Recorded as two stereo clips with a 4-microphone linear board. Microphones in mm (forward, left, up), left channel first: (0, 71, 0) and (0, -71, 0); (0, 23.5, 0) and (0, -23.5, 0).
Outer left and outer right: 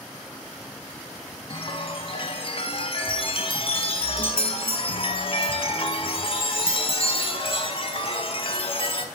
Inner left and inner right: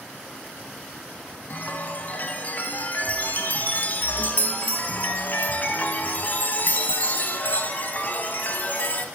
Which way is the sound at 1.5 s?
40° left (ahead or behind).